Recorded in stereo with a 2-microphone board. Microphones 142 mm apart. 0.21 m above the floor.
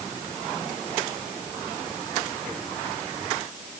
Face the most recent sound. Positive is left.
No sound to turn to.